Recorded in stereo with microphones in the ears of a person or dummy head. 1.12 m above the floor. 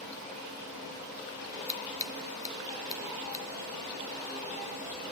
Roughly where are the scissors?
Centre.